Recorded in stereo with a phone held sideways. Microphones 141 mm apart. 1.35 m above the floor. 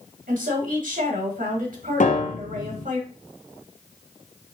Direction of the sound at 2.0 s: 65° left (ahead or behind).